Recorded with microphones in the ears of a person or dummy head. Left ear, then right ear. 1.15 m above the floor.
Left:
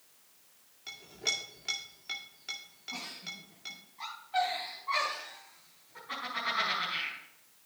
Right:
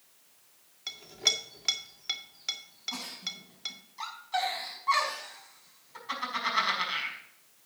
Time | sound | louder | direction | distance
0.9 | a clink | right 5 dB | 25° right (ahead or behind) | 1.7 m
2.9 | a giggle | right 1 dB | 85° right | 5.5 m